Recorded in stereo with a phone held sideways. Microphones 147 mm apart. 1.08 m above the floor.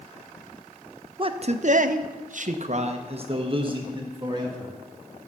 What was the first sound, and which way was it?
A man speaking, 35° right (ahead or behind).